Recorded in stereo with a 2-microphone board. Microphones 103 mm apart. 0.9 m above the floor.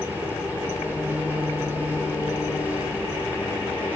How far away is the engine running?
About 8 m.